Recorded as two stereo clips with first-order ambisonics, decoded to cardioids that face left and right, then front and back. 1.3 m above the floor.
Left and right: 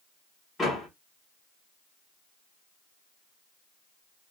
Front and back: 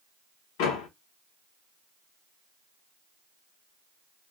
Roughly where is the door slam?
Ahead.